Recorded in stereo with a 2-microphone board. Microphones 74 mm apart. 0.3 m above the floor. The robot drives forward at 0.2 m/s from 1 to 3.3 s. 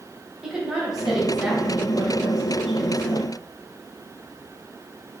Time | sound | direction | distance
0.4 | a woman speaking | 10° right (ahead or behind) | 1.6 m